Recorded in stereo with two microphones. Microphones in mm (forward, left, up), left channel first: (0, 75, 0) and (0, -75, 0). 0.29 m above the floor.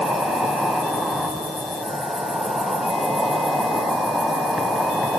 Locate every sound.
0.0 s an insect: centre (ahead or behind), 0.8 m